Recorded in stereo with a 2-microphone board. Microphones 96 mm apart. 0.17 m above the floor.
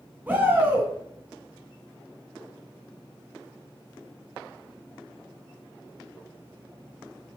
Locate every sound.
0.3 s a shout: 20° right (ahead or behind), 1.4 m